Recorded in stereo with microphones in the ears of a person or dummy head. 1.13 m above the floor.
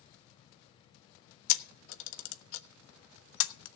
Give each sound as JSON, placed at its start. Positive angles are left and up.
{"t": 1.5, "sound": "a camera shutter", "side_deg": 80, "distance_m": 1.1}